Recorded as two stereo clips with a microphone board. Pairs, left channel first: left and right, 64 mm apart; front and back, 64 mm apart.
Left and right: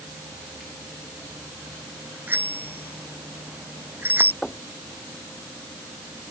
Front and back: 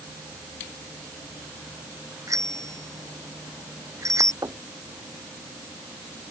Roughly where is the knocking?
Behind.